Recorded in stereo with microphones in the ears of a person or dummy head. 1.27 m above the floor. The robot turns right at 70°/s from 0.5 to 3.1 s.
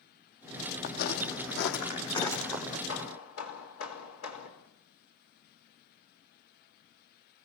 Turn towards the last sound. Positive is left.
turn(degrees=80)